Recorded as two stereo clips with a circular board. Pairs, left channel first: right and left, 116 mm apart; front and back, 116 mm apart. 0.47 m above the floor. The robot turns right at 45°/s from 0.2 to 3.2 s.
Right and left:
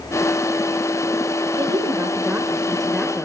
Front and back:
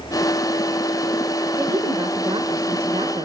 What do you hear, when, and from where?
1.6 s a woman speaking: 125° left, 1.6 m; by 3.2 s 160° right, 1.6 m